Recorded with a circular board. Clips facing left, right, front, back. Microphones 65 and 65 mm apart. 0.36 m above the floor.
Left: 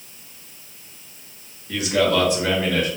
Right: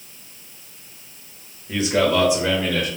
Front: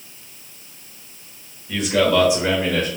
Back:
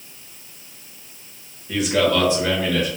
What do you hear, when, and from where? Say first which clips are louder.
1.7 s a man speaking: right 1 dB, front 1 dB; 110° right, 1.7 m; by 2.9 s 10° left, 1.6 m